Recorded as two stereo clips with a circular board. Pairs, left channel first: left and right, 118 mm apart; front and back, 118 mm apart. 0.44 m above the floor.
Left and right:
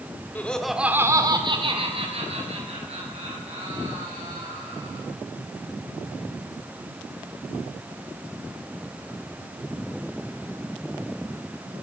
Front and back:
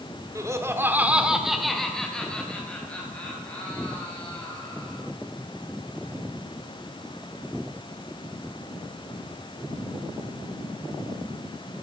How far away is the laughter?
About 1.5 m.